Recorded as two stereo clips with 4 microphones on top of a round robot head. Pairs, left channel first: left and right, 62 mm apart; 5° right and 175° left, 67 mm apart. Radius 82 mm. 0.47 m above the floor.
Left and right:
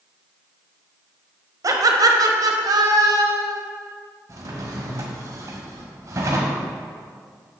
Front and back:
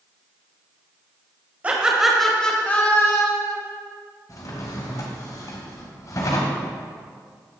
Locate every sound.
1.6 s laughter: 115° right, 2.5 m; by 3.5 s 55° right, 3 m
4.3 s a drawer: 50° right, 2 m